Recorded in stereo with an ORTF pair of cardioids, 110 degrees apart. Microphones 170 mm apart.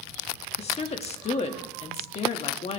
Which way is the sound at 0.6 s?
40° left.